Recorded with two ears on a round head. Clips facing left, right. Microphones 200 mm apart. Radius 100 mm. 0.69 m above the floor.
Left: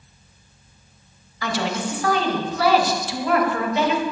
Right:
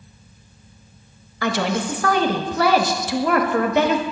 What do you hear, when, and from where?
1.4 s a woman speaking: 45° right (ahead or behind), 0.8 m